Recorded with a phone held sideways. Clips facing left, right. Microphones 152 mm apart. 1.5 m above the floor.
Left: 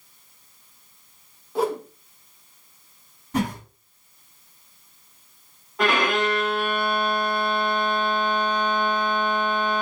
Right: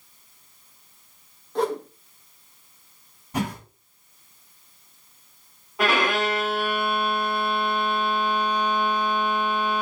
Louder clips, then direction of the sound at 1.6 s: Left 1 dB; 5° left (ahead or behind).